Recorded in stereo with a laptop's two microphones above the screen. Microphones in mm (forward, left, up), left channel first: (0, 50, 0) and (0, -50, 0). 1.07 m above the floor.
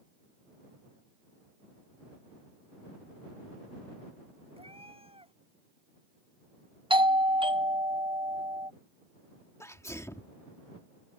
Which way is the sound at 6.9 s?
55° right (ahead or behind).